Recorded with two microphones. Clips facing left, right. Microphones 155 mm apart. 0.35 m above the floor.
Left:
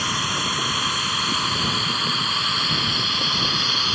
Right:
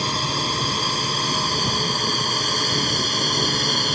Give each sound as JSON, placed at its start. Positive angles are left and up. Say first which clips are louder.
{"t": 0.0, "sound": "a drone", "louder": "right 2 dB", "side_deg": -30}